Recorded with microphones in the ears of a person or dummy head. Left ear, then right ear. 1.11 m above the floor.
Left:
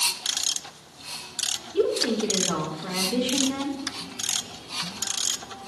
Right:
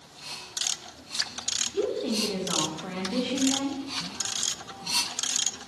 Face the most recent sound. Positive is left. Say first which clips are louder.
# left 8 dB
turn(degrees=10)  # may be behind; listen again after turning